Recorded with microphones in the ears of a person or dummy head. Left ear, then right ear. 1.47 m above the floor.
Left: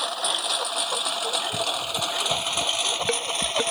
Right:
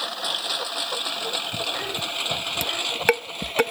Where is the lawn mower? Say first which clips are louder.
Left 1 dB; 40° left (ahead or behind); by 3.7 s 50° left (ahead or behind).